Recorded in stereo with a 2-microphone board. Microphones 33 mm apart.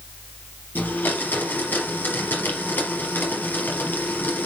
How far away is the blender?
About 3.5 m.